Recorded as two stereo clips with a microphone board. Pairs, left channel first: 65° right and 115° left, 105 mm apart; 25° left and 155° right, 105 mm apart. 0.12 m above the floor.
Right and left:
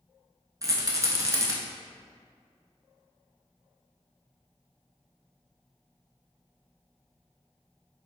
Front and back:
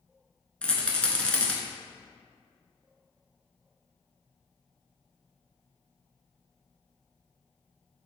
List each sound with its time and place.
0.6 s a rattle: 95° left, 0.5 m